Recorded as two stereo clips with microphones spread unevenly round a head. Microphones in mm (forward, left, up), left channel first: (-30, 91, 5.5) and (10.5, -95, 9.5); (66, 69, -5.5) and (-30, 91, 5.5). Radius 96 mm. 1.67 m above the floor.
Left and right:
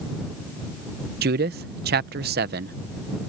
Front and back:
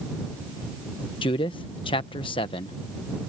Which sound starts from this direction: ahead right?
A man speaking, at 1.2 s.